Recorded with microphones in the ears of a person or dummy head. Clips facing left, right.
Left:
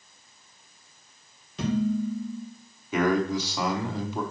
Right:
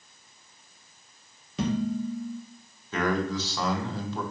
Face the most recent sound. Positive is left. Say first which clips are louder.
# left 4 dB
turn(degrees=10)  # may be behind; listen again after turning